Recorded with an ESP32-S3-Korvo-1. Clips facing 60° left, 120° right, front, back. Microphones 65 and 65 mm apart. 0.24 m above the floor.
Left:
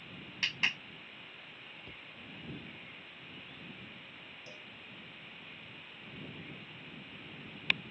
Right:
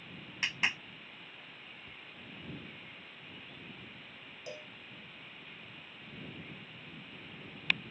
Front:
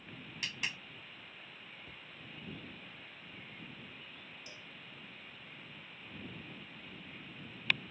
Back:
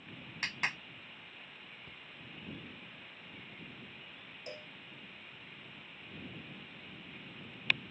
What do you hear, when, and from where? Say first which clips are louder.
0.4 s a clap: right 1 dB, back 5 dB; 170° left
1.8 s a cupboard door: left 1 dB, even; 85° left
4.5 s a cowbell: right 10 dB, back 6 dB; 140° right